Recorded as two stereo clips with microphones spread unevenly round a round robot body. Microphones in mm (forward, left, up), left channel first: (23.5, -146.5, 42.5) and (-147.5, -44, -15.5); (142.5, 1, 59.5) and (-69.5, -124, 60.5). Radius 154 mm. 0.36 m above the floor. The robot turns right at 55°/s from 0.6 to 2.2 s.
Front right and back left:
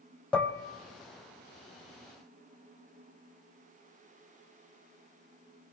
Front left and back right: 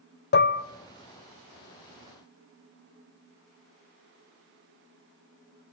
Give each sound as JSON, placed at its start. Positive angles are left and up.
{"t": 0.3, "sound": "dishes clattering", "azimuth_deg": 65, "distance_m": 1.2}